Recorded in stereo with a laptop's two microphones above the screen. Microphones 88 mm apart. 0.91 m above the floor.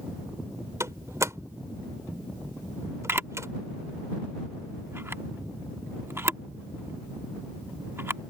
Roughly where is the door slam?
Right.